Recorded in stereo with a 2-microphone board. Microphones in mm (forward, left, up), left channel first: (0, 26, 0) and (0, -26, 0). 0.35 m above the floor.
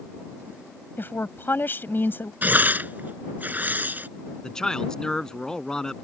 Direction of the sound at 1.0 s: 45° left (ahead or behind).